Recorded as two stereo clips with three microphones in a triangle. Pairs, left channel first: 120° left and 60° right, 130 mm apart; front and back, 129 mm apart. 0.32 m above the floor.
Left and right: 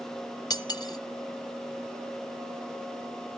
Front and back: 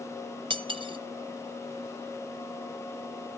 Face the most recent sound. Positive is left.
turn(degrees=160)